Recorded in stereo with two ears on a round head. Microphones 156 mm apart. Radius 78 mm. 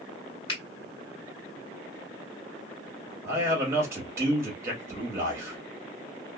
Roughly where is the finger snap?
Left.